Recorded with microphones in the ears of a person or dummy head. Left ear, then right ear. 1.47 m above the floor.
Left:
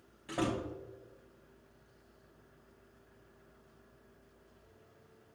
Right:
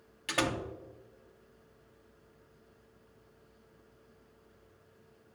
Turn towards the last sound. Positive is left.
turn(degrees=-65)  # may be behind; listen again after turning